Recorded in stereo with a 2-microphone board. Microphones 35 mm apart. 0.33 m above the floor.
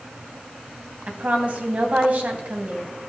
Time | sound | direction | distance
1.1 | a woman speaking | 45° right (ahead or behind) | 2 m